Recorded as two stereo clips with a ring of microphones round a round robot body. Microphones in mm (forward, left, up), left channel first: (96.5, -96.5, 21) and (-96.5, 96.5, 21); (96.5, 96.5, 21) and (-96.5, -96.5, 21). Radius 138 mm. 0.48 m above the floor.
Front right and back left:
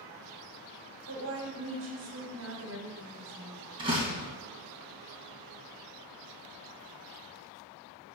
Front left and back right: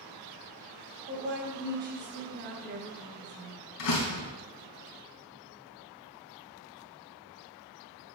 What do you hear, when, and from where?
1.1 s a woman speaking: 175° left, 2.5 m
3.8 s a door slam: 65° left, 2.5 m